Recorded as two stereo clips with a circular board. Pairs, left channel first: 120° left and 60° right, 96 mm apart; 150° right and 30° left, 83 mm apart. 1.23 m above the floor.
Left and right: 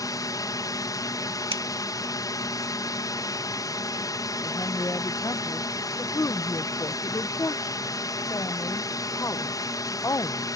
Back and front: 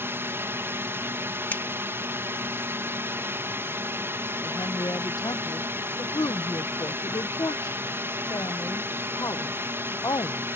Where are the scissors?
80° right.